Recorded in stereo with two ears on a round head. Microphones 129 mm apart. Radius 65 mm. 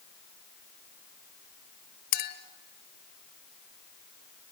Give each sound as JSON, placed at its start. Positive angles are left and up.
{"t": 2.1, "sound": "a clink", "side_deg": 75, "distance_m": 1.6}